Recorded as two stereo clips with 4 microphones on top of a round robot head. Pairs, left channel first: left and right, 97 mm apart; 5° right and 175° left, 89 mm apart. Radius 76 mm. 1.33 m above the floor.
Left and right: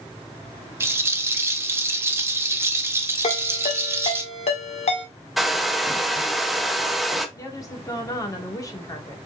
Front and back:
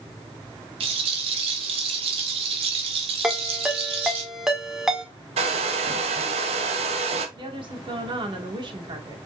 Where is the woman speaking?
145° left, 1.7 m.